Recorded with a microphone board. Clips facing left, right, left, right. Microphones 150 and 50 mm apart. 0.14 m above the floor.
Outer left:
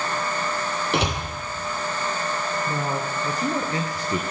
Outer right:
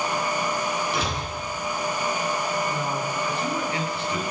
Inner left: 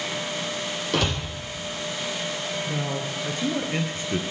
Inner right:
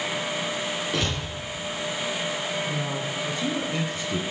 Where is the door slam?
75° left (ahead or behind), 4 m.